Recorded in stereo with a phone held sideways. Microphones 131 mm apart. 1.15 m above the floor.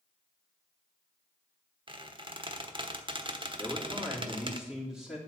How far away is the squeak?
About 1.1 m.